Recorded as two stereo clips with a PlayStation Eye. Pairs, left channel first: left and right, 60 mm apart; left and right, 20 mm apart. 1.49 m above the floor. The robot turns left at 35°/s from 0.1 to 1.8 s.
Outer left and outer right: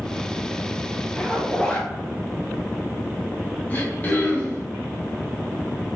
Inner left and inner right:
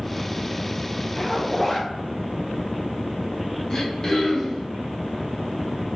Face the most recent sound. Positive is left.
turn(degrees=25)  # may be behind; listen again after turning